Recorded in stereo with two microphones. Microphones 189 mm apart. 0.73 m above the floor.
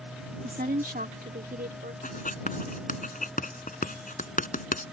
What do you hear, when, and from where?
0.4 s a woman speaking: 45° right (ahead or behind); by 1.9 s 55° right (ahead or behind)
2.0 s writing: 45° left (ahead or behind)